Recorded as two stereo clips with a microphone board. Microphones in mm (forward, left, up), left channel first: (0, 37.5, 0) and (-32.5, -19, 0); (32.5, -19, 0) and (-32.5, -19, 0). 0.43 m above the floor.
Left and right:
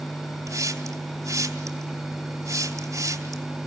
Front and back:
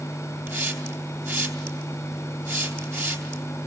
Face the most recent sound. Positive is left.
turn(degrees=-140)